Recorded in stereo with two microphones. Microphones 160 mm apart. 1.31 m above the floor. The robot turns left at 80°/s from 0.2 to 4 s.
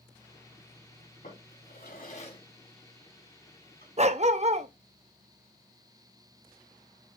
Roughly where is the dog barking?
Right.